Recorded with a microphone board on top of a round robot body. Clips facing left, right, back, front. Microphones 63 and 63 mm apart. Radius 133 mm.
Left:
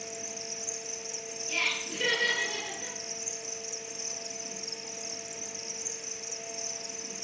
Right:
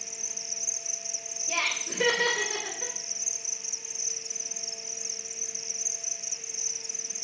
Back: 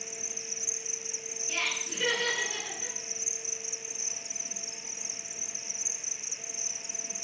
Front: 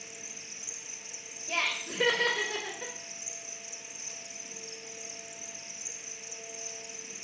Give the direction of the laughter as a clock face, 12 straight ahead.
2 o'clock.